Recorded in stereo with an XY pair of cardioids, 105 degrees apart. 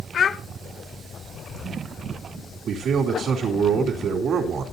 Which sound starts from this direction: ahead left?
A child speaking, at 0.1 s.